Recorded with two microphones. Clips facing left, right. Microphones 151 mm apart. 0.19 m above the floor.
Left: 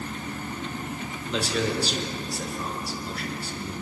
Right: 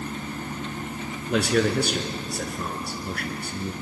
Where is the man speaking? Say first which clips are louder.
Right 5 dB; 60° right (ahead or behind), 2.5 m.